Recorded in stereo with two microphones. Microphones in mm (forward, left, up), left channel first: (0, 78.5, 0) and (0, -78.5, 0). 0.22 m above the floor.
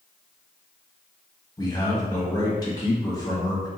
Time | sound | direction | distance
1.6 | a man speaking | 25° left (ahead or behind) | 1.0 m